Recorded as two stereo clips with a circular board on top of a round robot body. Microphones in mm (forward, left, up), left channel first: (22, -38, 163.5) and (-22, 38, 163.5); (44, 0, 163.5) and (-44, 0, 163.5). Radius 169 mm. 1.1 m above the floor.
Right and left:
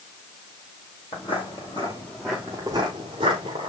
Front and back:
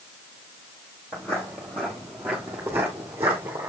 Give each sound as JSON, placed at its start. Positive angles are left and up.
{"t": 1.1, "sound": "footsteps", "azimuth_deg": -70, "distance_m": 1.2}